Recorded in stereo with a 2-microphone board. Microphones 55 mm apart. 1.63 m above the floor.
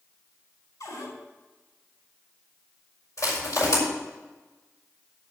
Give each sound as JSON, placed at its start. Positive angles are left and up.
{"t": 0.8, "sound": "a cupboard door", "side_deg": 80, "distance_m": 4.5}
{"t": 3.2, "sound": "crushing", "side_deg": 65, "distance_m": 6.0}